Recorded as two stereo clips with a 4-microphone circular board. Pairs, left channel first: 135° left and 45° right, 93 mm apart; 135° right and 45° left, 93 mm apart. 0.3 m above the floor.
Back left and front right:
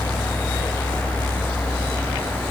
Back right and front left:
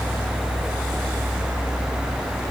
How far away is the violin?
I don't hear a violin.